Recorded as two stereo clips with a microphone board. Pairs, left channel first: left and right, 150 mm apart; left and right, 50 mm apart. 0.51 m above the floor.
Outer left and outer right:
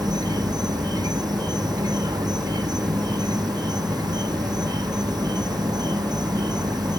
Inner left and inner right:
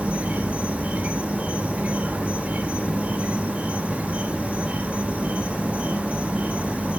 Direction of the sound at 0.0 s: 25° right (ahead or behind).